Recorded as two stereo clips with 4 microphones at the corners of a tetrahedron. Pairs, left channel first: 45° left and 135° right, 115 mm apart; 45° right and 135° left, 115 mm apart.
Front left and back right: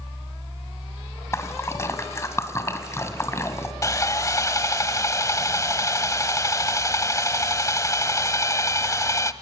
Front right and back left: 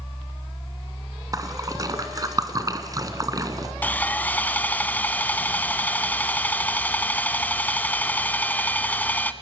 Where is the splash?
100° left, 1.7 m.